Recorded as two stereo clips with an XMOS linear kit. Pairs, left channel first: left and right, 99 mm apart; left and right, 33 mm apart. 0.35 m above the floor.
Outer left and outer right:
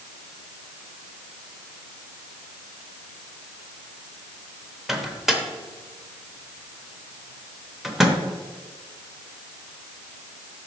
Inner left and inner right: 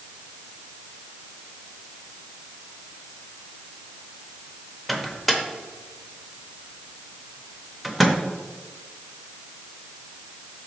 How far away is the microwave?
About 0.8 m.